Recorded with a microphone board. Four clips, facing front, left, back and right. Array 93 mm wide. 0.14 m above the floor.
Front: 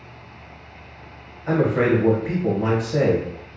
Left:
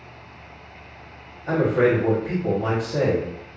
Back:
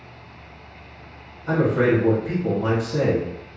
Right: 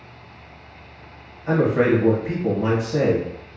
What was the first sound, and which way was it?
A man speaking, 25° right.